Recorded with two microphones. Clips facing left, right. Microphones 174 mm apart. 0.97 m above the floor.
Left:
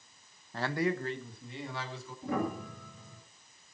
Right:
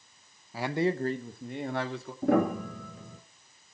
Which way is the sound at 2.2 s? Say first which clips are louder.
Right 9 dB; 65° right (ahead or behind).